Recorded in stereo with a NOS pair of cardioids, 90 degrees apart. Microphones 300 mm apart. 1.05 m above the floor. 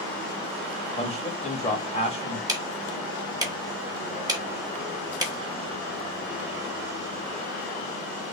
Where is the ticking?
15° right, 1.2 m.